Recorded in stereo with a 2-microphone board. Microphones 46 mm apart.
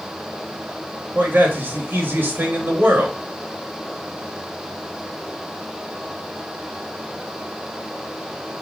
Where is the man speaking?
45° right (ahead or behind), 1.2 m.